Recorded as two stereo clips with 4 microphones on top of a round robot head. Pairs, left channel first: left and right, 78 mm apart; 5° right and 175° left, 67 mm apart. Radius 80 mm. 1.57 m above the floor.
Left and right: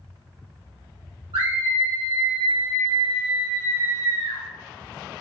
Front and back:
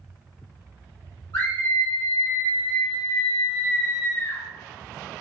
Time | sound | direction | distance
1.3 | a scream | 50° right | 1.2 m